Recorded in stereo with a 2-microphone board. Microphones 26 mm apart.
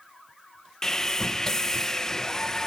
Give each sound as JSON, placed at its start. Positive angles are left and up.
{"t": 0.8, "sound": "sawing", "side_deg": 20}